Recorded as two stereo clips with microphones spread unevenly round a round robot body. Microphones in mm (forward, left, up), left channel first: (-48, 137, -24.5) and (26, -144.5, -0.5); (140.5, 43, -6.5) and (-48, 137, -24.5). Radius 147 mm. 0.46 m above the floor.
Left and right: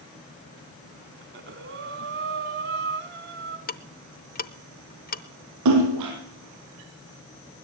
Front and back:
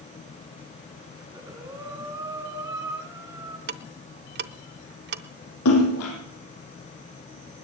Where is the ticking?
155° left, 0.7 m.